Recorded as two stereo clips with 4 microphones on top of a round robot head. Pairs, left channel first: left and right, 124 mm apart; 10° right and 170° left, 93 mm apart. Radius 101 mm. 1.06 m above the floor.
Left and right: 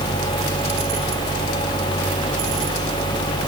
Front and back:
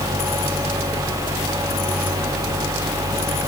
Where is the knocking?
No knocking in this recording.